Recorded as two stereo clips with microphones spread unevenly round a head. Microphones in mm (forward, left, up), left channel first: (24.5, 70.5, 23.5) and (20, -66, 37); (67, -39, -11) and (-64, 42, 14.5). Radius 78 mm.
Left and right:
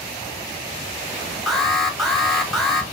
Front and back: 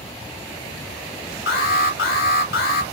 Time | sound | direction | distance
1.5 | an alarm | straight ahead | 1.5 m